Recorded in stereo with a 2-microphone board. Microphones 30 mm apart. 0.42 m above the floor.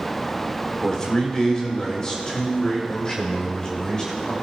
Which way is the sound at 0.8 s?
20° left (ahead or behind).